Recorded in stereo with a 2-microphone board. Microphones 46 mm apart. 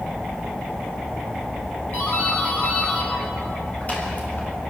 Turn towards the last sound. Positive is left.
turn(degrees=35)  # may be behind; listen again after turning